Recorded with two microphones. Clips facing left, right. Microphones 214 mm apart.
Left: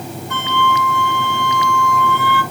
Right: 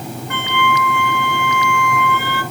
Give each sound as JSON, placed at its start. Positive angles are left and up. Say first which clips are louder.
{"t": 0.3, "sound": "a flute", "louder": "even", "side_deg": -60, "distance_m": 3.0}